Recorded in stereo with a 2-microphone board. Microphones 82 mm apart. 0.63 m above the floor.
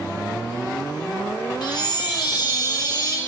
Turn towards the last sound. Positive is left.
turn(degrees=60)  # may be behind; listen again after turning